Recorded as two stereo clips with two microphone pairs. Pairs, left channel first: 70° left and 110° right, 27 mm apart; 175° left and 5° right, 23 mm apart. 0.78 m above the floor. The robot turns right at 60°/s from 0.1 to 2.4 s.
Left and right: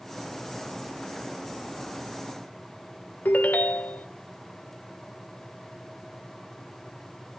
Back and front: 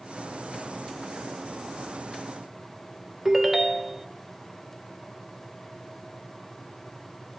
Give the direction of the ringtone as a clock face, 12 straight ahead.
9 o'clock.